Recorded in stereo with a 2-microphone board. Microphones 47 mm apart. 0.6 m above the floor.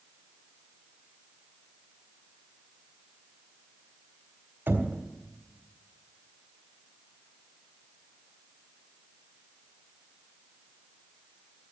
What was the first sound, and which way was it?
Knocking, 55° right (ahead or behind).